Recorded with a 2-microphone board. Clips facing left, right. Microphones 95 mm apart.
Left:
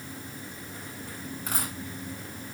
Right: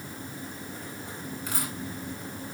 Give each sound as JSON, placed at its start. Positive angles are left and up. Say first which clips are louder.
{"t": 1.5, "sound": "a dropped coin", "louder": "left 1 dB", "side_deg": 45, "distance_m": 6.0}